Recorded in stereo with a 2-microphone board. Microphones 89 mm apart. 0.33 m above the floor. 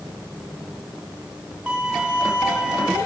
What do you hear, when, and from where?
1.7 s a violin: 15° right (ahead or behind), 6 m